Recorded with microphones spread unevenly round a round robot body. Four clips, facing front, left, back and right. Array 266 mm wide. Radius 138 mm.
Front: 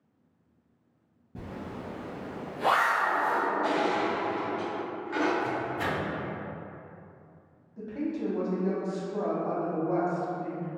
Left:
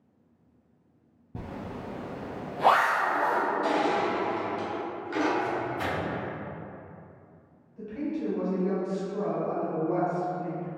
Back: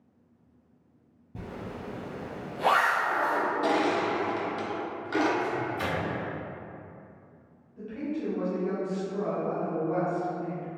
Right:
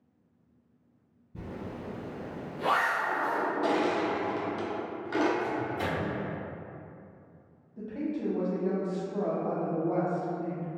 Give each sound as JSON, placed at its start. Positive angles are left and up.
{"t": 1.4, "sound": "a zipper", "azimuth_deg": 100, "distance_m": 0.7}
{"t": 3.6, "sound": "crushing", "azimuth_deg": -140, "distance_m": 0.7}
{"t": 5.4, "sound": "a microwave", "azimuth_deg": -130, "distance_m": 1.5}
{"t": 7.8, "sound": "a woman speaking", "azimuth_deg": -60, "distance_m": 0.9}